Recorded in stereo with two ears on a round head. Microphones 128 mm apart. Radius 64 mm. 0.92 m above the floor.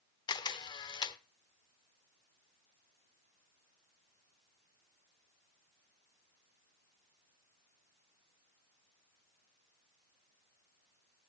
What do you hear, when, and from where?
0.3 s a camera shutter: 30° left (ahead or behind), 0.7 m